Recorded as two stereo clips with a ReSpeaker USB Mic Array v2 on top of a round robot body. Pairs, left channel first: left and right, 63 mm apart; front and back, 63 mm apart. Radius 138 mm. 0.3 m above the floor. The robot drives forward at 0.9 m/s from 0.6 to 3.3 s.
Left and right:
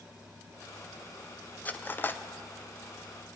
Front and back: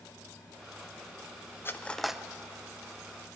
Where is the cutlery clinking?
35° left, 0.7 m; by 2.2 s 120° left, 0.6 m.